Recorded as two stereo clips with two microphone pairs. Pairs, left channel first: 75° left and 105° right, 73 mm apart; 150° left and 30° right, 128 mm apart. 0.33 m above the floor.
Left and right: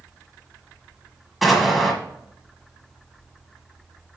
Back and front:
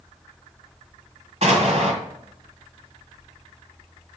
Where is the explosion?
15° right, 2.0 m.